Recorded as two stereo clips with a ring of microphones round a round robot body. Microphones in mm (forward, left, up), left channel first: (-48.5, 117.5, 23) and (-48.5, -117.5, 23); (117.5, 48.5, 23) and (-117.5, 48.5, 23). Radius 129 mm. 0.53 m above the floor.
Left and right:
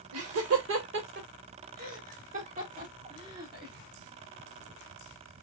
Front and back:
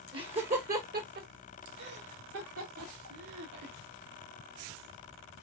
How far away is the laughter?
About 2 m.